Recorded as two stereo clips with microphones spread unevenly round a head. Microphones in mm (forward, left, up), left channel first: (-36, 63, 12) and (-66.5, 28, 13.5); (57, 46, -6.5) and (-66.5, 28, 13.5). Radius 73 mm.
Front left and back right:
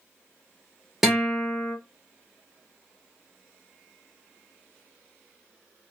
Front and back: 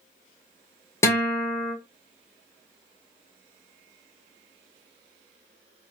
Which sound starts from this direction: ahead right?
A guitar, at 1.0 s.